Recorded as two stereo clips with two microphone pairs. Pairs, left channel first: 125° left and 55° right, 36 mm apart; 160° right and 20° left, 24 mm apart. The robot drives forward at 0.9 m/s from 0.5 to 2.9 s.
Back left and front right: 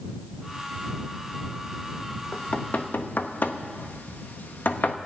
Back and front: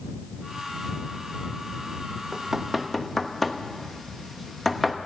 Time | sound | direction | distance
2.3 | knocking | 80° left | 0.9 m